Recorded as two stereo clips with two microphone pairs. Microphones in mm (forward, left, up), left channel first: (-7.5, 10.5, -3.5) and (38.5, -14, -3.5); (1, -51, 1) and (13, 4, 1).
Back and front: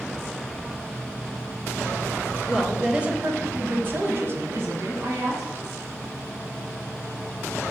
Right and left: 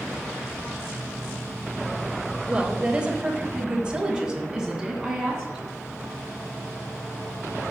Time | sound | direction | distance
2.5 | a woman speaking | 50° left | 0.9 m